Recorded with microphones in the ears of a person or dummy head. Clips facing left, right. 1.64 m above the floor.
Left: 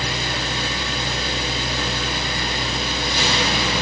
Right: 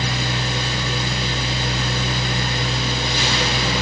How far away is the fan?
About 0.8 m.